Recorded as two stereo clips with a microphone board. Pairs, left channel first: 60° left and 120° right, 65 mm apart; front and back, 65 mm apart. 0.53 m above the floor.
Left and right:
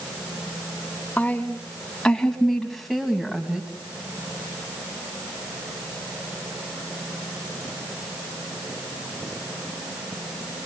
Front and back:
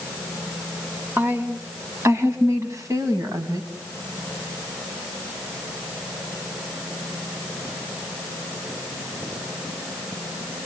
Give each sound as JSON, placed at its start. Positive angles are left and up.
{"t": 1.2, "sound": "a woman speaking", "azimuth_deg": 130, "distance_m": 4.0}